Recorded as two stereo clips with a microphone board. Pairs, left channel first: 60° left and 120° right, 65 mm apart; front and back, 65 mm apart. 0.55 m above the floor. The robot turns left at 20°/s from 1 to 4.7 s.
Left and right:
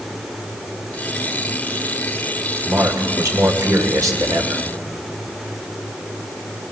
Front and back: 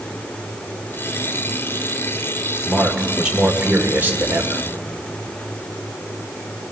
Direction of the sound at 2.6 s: 95° right.